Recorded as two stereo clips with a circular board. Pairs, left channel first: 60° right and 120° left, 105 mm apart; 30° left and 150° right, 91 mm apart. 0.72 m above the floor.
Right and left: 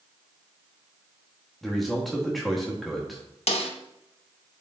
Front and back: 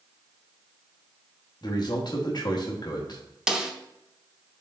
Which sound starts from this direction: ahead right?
A snare drum, at 3.5 s.